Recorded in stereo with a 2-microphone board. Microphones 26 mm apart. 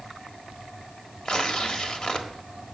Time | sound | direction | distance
1.2 | tearing paper | 35° left (ahead or behind) | 1.4 m